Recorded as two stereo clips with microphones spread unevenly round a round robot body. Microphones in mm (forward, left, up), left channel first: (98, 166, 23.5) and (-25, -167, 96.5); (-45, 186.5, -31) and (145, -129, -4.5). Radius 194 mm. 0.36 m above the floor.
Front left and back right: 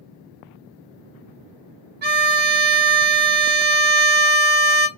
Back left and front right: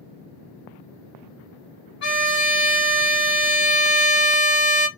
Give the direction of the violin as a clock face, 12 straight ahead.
6 o'clock.